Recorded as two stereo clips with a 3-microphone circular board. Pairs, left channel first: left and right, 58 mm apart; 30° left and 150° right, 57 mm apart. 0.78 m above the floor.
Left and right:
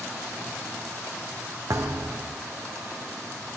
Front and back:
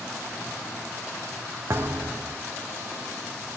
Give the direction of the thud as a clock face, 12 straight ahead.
4 o'clock.